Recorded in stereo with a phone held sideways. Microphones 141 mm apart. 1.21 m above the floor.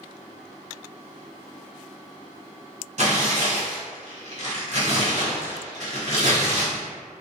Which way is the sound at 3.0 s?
55° right (ahead or behind).